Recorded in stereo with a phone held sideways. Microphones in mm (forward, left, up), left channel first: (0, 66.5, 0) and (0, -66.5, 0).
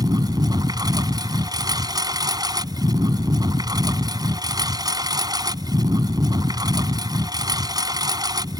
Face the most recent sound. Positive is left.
turn(degrees=-30)  # may be behind; listen again after turning